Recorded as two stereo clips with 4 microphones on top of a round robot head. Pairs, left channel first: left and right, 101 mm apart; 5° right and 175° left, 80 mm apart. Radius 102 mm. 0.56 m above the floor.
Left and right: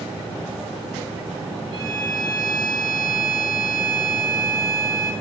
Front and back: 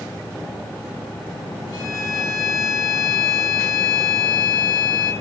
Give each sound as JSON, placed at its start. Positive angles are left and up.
{"t": 1.7, "sound": "a violin", "azimuth_deg": -40, "distance_m": 7.0}